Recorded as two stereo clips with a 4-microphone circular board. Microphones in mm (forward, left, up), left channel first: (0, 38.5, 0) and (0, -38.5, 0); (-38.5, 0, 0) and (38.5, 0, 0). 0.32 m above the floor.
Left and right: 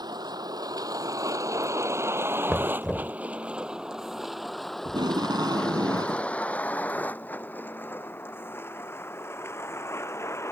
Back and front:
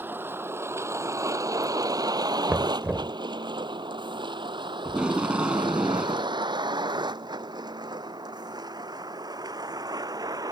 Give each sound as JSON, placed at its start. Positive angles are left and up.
{"t": 0.0, "sound": "a vehicle", "azimuth_deg": -65}
{"t": 2.5, "sound": "knocking", "azimuth_deg": 0}
{"t": 4.8, "sound": "tape being pulled", "azimuth_deg": -75}